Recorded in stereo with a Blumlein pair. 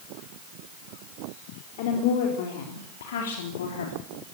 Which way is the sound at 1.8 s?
50° left.